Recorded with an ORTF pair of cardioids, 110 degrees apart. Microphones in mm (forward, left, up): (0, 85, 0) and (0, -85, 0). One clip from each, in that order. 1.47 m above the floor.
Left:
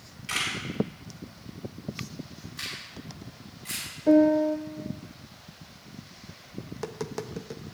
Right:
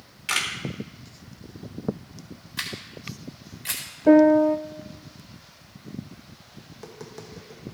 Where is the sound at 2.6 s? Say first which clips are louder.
Right 4 dB; 65° right, 4.5 m.